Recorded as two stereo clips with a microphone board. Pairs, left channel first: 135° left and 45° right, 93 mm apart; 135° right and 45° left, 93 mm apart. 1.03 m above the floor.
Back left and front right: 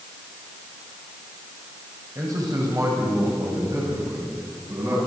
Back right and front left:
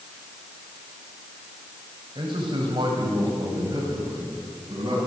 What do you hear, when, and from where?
2.1 s a man speaking: 10° left, 6 m; by 5.0 s 5° left, 9 m